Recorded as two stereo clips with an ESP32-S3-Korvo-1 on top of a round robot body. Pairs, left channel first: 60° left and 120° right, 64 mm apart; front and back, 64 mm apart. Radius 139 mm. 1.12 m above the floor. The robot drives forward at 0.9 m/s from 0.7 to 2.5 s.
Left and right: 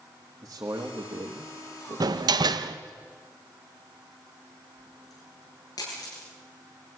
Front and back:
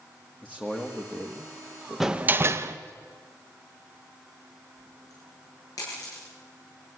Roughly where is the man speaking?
Right.